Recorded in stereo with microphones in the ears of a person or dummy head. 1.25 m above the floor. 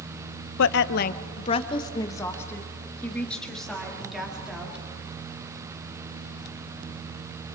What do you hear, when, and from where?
0.6 s a woman speaking: 70° left (ahead or behind), 0.7 m; by 4.8 s 5° right (ahead or behind), 2.5 m